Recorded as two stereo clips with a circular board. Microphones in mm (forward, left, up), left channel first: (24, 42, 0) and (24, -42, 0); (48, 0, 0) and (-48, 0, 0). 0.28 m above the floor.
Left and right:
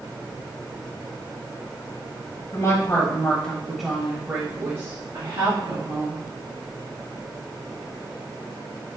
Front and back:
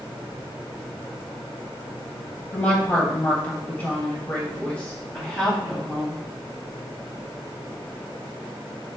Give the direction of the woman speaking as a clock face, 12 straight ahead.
10 o'clock.